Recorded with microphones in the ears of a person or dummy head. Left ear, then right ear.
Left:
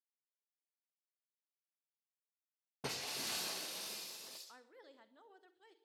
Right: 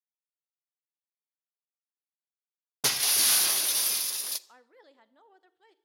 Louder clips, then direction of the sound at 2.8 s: Right 15 dB; 60° right (ahead or behind).